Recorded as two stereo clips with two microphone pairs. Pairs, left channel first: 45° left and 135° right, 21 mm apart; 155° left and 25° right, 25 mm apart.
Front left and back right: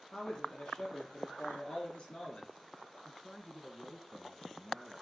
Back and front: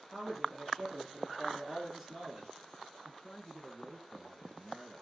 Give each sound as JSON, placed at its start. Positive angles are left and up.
{"t": 0.1, "sound": "a man speaking", "azimuth_deg": 70, "distance_m": 4.0}
{"t": 3.0, "sound": "a man speaking", "azimuth_deg": 145, "distance_m": 1.2}